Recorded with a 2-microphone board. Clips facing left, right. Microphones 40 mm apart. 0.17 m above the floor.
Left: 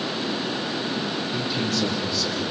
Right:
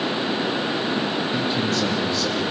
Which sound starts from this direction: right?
A man speaking, at 1.3 s.